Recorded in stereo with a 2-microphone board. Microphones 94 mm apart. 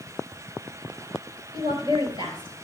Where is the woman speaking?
60° right (ahead or behind), 3 m.